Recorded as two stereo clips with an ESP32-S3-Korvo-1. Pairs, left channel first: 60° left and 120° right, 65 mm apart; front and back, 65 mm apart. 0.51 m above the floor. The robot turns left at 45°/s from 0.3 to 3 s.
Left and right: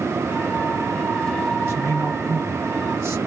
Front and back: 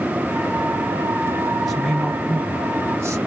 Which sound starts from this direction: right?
A man speaking, at 1.6 s.